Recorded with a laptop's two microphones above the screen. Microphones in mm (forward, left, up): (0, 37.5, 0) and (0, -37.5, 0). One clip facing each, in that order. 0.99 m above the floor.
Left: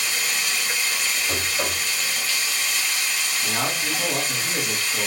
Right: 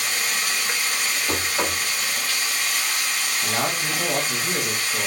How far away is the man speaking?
About 0.9 m.